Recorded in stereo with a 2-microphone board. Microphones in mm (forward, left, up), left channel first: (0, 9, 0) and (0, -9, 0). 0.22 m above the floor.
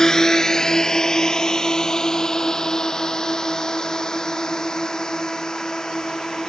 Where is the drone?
35° left (ahead or behind); by 6.5 s 45° left (ahead or behind).